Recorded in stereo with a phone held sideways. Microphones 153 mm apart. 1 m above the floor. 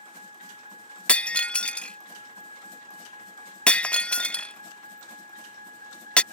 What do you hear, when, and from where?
0.0 s a vehicle: 40° right (ahead or behind); by 6.3 s 65° right (ahead or behind)
1.1 s breaking glass: 5° left (ahead or behind)